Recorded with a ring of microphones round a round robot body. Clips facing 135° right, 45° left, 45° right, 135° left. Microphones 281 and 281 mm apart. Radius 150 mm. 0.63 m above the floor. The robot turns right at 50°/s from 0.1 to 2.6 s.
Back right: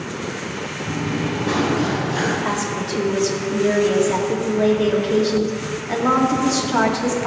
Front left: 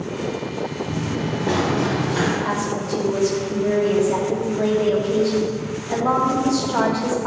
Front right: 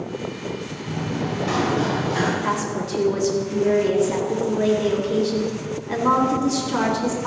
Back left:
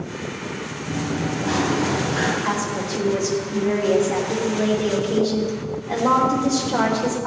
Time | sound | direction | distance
0.9 | running footsteps | 105° right | 4.5 m
2.4 | a woman speaking | 120° right | 1.8 m